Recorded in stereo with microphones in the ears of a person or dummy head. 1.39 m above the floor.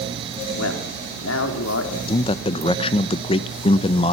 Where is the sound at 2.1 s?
35° left (ahead or behind), 0.9 m.